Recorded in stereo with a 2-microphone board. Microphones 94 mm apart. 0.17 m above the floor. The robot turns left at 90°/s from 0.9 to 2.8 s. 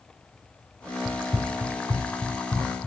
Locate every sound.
1.1 s running footsteps: 20° left (ahead or behind), 0.6 m; by 2.9 s 35° left (ahead or behind), 1.5 m